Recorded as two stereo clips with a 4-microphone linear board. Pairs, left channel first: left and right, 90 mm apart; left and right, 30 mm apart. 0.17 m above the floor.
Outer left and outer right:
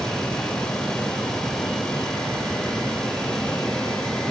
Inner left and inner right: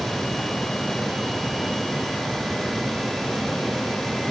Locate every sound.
Only background noise.